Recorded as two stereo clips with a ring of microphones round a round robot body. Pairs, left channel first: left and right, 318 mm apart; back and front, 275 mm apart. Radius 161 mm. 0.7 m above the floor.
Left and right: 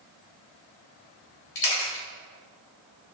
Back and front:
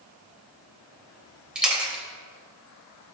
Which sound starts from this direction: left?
A camera shutter, at 1.6 s.